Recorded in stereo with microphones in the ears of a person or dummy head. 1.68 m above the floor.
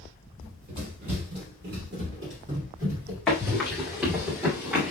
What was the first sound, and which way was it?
Running footsteps, 45° right (ahead or behind).